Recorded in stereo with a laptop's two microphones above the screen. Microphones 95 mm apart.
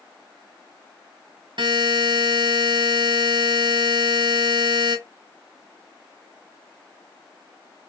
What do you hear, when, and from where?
1.6 s a buzzer: 60° right (ahead or behind), 1.5 m